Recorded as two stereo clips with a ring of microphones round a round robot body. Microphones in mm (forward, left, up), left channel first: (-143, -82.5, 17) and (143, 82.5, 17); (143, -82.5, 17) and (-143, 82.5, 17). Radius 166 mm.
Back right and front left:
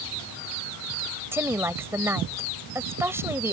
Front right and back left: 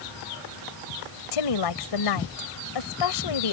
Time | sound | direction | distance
1.3 | a woman speaking | 55° right | ?